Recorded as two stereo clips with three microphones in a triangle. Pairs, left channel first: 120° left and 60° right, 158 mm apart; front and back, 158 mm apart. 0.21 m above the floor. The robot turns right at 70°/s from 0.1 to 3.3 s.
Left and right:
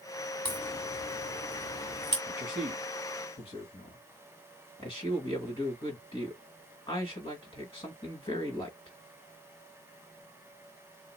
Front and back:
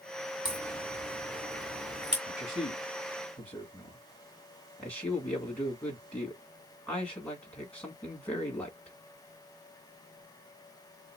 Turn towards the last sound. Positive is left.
turn(degrees=80)